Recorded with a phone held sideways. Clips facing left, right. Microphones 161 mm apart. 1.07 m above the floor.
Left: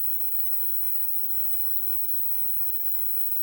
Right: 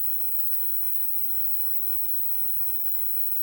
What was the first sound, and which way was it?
An insect, 35° left (ahead or behind).